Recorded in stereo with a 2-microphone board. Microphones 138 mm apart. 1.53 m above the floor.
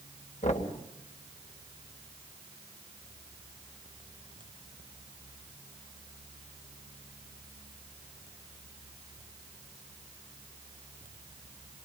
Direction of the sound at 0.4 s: 60° left (ahead or behind).